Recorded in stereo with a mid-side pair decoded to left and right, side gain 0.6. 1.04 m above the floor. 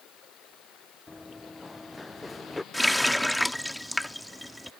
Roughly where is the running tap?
Ahead.